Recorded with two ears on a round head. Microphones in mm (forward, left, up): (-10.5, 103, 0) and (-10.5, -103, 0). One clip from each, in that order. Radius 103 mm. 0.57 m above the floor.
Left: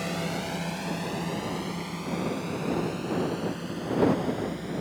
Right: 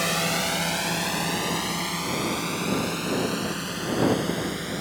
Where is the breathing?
I don't hear breathing.